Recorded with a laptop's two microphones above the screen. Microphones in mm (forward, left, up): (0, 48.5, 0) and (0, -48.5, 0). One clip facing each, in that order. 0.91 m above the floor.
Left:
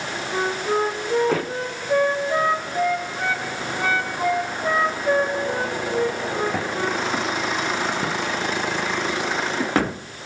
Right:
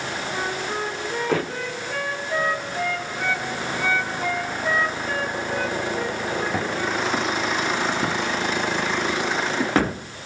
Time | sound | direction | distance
0.3 | a flute | 40° left (ahead or behind) | 1.2 m